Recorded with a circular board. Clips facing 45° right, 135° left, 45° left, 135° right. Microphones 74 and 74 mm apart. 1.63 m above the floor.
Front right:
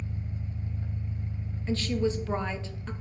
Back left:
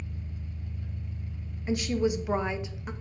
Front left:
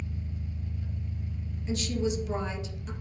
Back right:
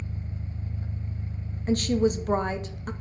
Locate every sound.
0.0 s an engine running: 95° right, 1.0 m
1.7 s a woman speaking: 155° right, 0.7 m